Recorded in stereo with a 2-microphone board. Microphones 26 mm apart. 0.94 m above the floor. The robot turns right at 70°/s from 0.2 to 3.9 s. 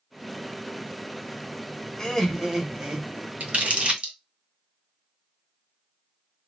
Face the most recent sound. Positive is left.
turn(degrees=-45)  # may be behind; listen again after turning